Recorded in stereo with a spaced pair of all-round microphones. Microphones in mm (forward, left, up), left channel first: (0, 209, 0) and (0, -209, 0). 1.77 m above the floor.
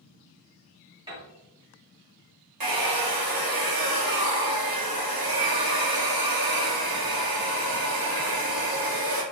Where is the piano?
10° right (ahead or behind), 1.4 m.